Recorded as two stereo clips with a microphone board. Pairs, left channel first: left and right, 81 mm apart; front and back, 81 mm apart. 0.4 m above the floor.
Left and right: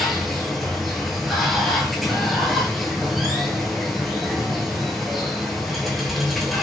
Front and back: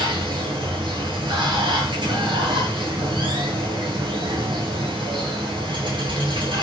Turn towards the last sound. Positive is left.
turn(degrees=180)